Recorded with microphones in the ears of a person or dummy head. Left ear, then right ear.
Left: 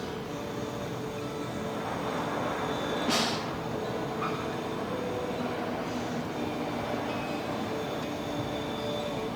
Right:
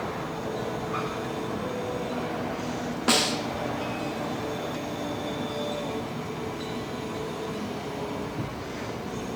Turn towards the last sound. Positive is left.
turn(degrees=-45)  # may be behind; listen again after turning